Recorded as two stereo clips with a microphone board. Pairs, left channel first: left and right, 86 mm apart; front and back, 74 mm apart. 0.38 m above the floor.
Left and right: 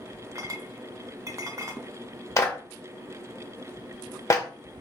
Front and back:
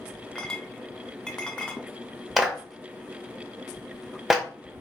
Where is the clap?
100° left, 0.7 m.